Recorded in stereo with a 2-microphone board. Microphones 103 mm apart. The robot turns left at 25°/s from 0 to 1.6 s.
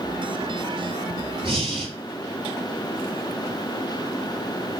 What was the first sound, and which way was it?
Breathing, 50° right (ahead or behind).